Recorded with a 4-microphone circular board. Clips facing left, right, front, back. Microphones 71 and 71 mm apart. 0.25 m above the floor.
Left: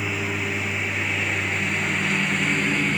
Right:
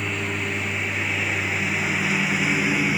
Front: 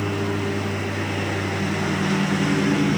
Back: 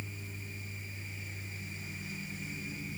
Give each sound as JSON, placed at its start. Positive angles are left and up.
{"t": 0.0, "sound": "a lawn mower", "azimuth_deg": 5}